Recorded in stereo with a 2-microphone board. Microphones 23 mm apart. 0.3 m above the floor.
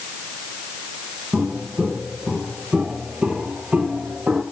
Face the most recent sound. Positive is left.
turn(degrees=-85)